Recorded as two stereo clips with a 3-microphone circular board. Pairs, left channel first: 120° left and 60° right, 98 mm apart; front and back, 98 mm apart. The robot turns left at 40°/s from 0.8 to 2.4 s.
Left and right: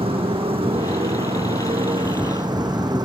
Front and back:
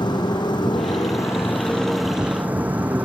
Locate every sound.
0.0 s a motorcycle: 40° right; by 3.0 s 105° right